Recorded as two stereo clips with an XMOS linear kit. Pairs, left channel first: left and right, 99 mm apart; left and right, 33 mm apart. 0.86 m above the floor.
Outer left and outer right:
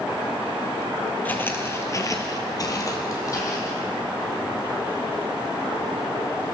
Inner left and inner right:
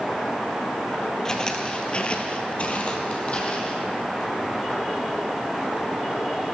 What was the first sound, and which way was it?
Footsteps, 20° left (ahead or behind).